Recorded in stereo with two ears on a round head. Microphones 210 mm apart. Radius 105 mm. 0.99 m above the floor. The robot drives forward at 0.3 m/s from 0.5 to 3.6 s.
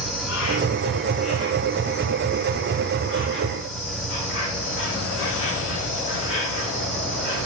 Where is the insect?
65° left (ahead or behind), 6.5 m; by 7.5 s 60° left (ahead or behind), 7 m.